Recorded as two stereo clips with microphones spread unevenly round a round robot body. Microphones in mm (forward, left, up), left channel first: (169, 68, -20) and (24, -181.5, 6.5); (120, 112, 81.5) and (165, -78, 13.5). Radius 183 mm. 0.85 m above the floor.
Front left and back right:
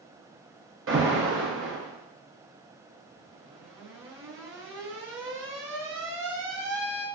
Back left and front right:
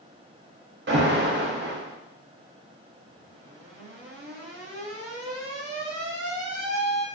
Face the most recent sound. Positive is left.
turn(degrees=-70)